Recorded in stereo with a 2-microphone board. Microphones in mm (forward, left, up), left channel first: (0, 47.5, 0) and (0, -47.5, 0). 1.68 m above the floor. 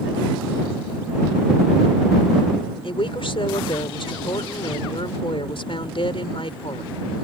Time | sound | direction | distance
2.8 | a woman speaking | 60° left (ahead or behind) | ?